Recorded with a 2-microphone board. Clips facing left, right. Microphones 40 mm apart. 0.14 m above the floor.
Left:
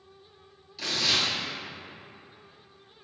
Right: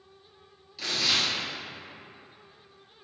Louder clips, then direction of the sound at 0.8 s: Even; 5° right (ahead or behind).